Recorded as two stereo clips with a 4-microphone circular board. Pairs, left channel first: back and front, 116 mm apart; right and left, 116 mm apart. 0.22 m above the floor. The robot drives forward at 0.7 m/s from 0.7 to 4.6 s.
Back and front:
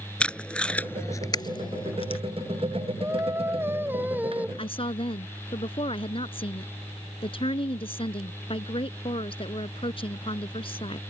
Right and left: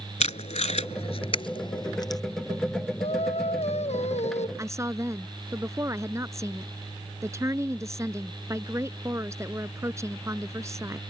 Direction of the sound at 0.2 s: 100° right.